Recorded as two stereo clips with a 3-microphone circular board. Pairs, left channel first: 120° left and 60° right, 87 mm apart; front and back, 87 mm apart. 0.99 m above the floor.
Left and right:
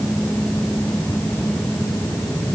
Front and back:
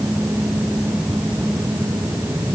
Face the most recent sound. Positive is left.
No sound to turn to.